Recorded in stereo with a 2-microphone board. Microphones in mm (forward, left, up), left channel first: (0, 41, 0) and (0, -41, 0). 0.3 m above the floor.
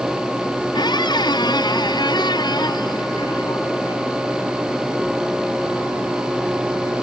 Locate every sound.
0.7 s a squeak: 60° left (ahead or behind)